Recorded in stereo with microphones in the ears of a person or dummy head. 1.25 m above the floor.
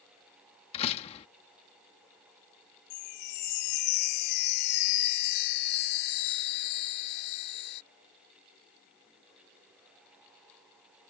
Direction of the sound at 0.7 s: 35° left (ahead or behind).